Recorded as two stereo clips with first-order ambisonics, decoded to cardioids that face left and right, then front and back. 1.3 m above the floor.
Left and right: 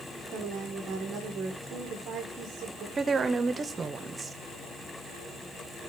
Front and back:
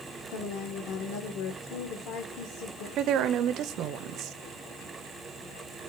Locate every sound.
0.3 s a woman speaking: 35° right, 1.2 m
3.0 s a woman speaking: 155° right, 0.5 m